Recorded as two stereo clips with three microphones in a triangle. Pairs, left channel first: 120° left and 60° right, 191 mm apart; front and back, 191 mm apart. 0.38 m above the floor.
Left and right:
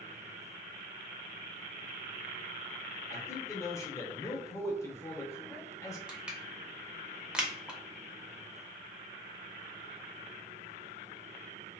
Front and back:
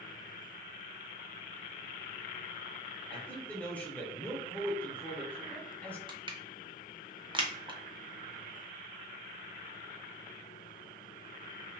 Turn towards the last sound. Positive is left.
turn(degrees=-140)